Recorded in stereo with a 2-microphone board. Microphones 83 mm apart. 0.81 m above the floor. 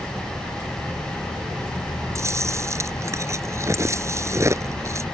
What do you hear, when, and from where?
2.1 s chewing: 35° right (ahead or behind)